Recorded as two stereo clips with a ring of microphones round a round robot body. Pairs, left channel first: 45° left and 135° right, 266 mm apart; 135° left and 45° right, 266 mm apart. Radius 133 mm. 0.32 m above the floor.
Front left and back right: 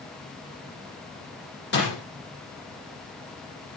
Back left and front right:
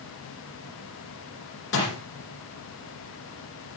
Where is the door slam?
95° left, 6.5 m.